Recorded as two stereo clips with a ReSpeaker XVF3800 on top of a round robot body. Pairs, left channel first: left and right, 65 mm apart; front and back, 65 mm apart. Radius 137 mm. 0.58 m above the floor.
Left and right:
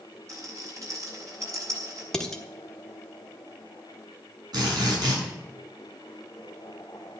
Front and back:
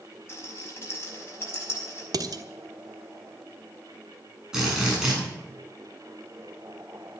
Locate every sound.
0.3 s a rattle: 50° right, 5 m
2.1 s dishes clattering: 175° left, 1.4 m
4.5 s a drill: 100° right, 8.5 m